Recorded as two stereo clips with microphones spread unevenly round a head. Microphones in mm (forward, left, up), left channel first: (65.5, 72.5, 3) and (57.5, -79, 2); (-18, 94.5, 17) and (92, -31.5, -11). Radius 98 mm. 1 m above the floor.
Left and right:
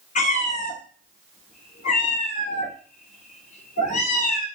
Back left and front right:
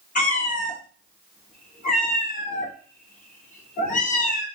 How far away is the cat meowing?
About 1.5 m.